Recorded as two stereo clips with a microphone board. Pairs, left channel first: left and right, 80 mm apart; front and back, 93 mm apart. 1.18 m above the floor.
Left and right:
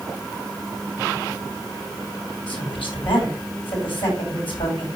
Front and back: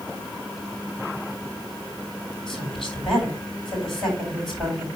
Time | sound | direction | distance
2.5 | a woman speaking | 90° left | 9 m